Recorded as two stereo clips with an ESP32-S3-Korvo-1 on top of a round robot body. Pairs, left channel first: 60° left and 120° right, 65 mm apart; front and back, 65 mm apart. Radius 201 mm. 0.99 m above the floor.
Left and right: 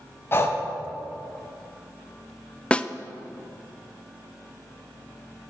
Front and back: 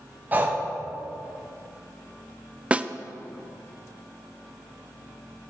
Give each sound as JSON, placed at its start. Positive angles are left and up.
{"t": 0.3, "sound": "breathing", "azimuth_deg": 115, "distance_m": 1.0}
{"t": 2.7, "sound": "a snare drum", "azimuth_deg": 120, "distance_m": 0.6}